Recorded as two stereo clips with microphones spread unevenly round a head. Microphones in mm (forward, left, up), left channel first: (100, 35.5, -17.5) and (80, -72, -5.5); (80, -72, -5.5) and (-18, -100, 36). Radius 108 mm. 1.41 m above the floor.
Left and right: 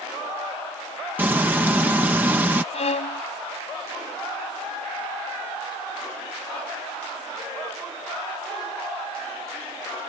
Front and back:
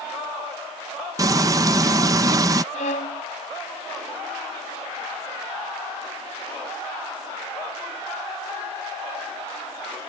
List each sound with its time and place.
1.2 s frying: 170° right
2.7 s a violin: 60° left